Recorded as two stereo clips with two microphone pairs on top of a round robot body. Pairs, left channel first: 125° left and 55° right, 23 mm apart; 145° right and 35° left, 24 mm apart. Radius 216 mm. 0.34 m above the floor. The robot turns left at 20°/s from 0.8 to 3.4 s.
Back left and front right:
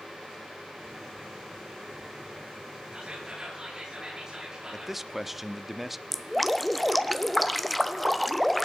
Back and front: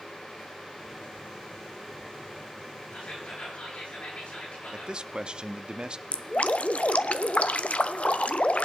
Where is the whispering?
105° right, 9.5 m; by 5.0 s 115° right, 9.5 m.